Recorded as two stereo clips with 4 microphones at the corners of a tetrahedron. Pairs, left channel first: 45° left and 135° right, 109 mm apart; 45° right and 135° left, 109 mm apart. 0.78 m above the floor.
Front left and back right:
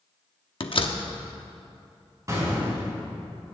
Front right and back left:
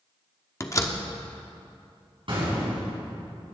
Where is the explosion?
170° left, 4 m.